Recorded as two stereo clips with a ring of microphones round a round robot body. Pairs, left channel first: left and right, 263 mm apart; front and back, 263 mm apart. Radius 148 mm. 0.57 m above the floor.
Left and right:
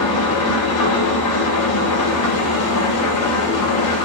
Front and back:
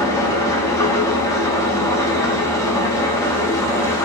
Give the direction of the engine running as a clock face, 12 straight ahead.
9 o'clock.